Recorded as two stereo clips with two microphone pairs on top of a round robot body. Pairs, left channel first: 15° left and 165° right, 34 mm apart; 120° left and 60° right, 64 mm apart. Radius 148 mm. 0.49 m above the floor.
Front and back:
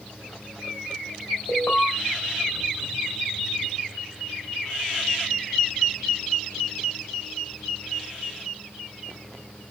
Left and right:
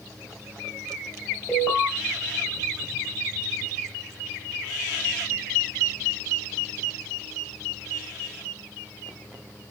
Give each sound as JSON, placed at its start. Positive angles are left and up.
{"t": 1.5, "sound": "an alarm", "azimuth_deg": 20, "distance_m": 4.0}